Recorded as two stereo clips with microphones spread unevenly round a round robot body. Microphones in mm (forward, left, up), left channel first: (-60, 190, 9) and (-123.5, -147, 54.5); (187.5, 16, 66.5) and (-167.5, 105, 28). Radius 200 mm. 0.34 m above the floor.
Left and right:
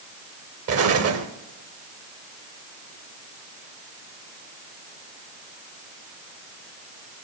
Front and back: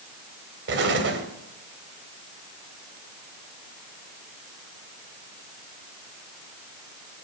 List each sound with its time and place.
0.7 s an explosion: 145° right, 1.8 m